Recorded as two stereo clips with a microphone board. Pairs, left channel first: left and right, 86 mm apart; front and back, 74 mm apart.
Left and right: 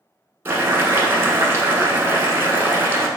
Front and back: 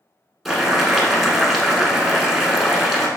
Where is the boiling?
90° right, 0.9 m.